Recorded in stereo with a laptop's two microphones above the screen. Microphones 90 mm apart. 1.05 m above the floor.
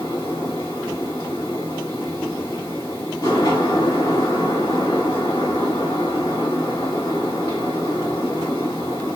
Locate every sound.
0.0 s a fan: 40° left (ahead or behind), 1.7 m